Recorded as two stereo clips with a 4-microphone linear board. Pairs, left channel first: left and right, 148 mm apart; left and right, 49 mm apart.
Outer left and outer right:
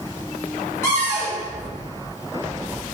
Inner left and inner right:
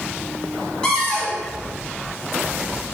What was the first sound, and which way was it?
A cupboard door, 15° left (ahead or behind).